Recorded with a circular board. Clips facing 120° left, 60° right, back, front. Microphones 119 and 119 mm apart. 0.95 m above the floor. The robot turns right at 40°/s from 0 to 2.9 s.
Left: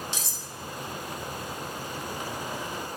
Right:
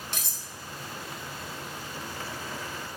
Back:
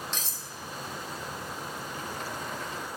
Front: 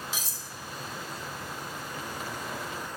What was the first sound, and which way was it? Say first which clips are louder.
Cutlery clinking: left 3 dB, even; 80° right.